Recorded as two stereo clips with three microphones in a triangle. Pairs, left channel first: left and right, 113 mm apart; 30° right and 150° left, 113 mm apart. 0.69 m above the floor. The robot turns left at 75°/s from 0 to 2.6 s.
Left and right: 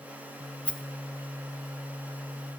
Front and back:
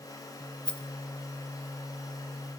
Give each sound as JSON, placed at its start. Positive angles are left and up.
{"t": 0.7, "sound": "a rattle", "azimuth_deg": 15, "distance_m": 0.6}